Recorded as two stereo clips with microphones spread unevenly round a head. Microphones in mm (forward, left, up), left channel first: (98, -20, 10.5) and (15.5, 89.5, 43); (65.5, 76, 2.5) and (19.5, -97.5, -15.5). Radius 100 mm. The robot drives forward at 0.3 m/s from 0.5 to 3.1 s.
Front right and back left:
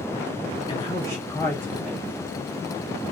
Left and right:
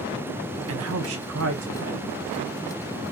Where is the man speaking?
115° right, 0.6 m; by 2.1 s 140° right, 0.9 m.